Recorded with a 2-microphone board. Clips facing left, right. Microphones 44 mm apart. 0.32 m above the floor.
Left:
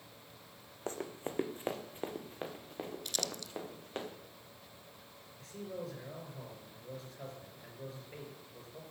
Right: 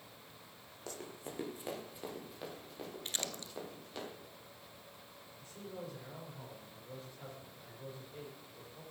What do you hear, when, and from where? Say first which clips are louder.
0.9 s running footsteps: left 6 dB; 35° left (ahead or behind), 1.1 m; by 4.0 s 40° left (ahead or behind), 3.5 m
3.0 s crumpling: left 2 dB; 35° right (ahead or behind), 0.6 m
5.4 s a man speaking: left 4 dB; 75° left (ahead or behind), 5 m